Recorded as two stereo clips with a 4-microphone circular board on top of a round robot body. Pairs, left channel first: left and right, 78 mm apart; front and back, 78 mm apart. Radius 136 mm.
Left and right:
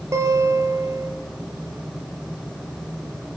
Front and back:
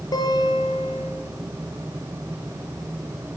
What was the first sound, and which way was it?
A guitar, 40° right.